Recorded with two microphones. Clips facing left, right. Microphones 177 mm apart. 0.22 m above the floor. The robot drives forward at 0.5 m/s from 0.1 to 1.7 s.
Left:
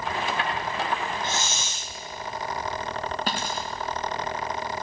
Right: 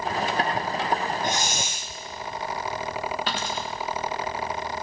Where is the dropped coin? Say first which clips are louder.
Even; 40° left (ahead or behind), 4 m.